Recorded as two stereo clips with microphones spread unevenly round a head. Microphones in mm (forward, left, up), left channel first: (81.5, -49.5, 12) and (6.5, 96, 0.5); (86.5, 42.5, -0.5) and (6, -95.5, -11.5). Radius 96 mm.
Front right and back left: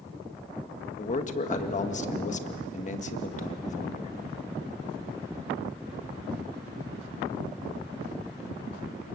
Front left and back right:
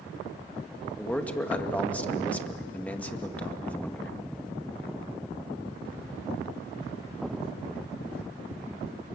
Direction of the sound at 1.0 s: 20° right.